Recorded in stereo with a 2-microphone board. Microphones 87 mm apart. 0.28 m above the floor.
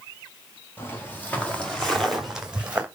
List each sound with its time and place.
0.8 s footsteps: 25° left (ahead or behind), 3.5 m; by 2.9 s 20° right (ahead or behind), 2.5 m